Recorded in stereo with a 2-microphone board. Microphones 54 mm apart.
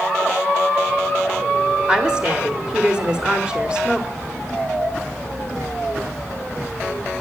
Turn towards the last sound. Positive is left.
turn(degrees=-15)  # may be behind; listen again after turning